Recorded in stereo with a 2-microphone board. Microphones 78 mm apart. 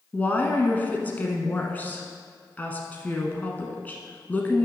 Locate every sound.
0.1 s a woman speaking: 20° left (ahead or behind), 1.1 m